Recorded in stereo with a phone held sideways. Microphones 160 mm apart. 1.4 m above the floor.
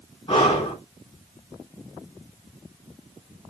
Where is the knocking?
I don't hear knocking.